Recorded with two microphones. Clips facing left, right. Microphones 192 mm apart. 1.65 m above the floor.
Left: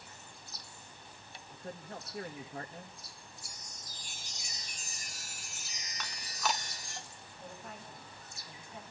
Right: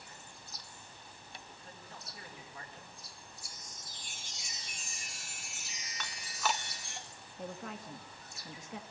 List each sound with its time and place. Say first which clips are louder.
1.5 s a man speaking: left 12 dB; 45° left (ahead or behind), 2.0 m
3.4 s a chime: even; 35° left (ahead or behind), 4 m
6.0 s dishes clattering: even; centre (ahead or behind), 1.1 m
7.4 s a woman speaking: right 6 dB; 70° right (ahead or behind), 3 m